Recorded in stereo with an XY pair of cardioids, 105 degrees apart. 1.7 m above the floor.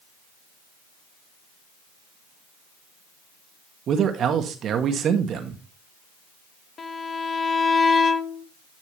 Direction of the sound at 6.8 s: 40° left.